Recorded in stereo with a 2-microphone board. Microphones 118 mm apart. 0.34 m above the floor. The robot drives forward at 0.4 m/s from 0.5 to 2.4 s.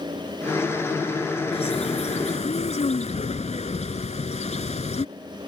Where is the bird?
60° left (ahead or behind); by 5.0 s 75° left (ahead or behind).